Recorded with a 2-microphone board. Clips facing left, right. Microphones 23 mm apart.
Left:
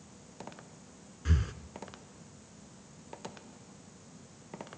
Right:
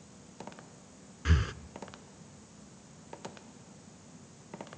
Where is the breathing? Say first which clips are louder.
Right 3 dB; 30° right (ahead or behind), 0.8 m.